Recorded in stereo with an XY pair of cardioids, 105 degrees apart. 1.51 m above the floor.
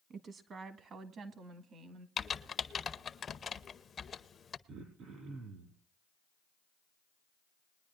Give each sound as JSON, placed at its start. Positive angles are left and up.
{"t": 0.1, "sound": "a woman speaking", "azimuth_deg": -50, "distance_m": 1.5}
{"t": 2.2, "sound": "typing on a keyboard", "azimuth_deg": 45, "distance_m": 0.7}
{"t": 4.7, "sound": "throat clearing", "azimuth_deg": -70, "distance_m": 5.0}